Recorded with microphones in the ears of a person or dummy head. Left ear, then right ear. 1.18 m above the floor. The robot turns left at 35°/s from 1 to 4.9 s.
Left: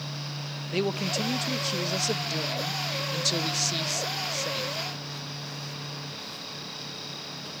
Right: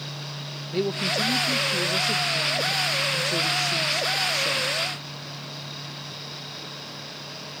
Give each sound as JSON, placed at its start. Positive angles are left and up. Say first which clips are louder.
{"t": 0.7, "sound": "a man speaking", "louder": "right 3 dB", "azimuth_deg": 125, "distance_m": 1.2}